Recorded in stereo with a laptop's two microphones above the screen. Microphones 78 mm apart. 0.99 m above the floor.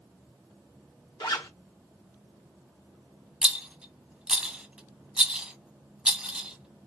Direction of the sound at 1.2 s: 70° left (ahead or behind).